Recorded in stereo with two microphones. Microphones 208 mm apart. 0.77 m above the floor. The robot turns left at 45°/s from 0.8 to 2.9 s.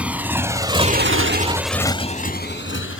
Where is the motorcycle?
5° right (ahead or behind); by 3.0 s 80° left.